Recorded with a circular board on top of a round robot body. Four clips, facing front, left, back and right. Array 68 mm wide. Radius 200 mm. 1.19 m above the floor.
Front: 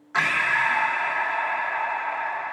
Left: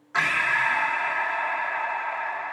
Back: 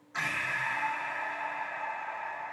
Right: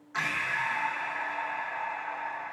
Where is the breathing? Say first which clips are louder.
Left 7 dB, front 11 dB; 30° left, 1.3 m.